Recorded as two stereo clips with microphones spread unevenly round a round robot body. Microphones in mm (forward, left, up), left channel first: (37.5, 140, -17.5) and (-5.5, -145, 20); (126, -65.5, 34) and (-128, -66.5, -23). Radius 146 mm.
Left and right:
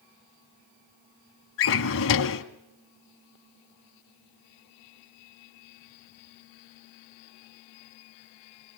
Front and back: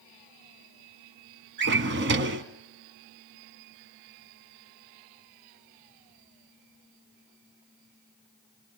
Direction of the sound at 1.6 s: 130° left.